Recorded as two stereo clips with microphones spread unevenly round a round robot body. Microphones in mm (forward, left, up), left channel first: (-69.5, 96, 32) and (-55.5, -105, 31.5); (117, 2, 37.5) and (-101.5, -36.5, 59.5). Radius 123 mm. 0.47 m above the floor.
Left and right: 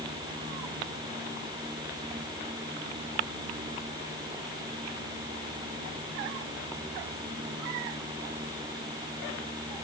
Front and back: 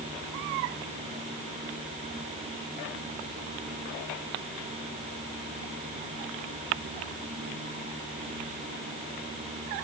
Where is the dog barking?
No dog barking in this recording.